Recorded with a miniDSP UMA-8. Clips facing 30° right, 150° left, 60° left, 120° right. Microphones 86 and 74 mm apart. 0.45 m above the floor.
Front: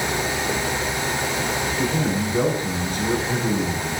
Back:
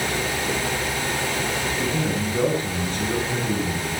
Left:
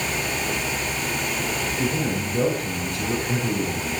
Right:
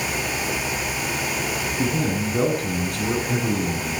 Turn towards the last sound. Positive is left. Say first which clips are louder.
# front 3 dB, right 3 dB
turn(degrees=-105)